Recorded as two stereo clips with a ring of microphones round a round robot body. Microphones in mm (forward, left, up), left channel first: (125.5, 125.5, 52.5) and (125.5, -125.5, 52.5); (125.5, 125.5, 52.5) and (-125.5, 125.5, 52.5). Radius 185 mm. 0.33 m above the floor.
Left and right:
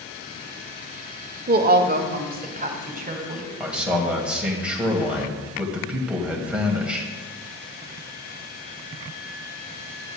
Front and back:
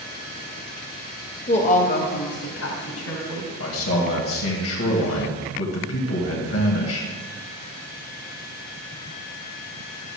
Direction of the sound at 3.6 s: 5° right.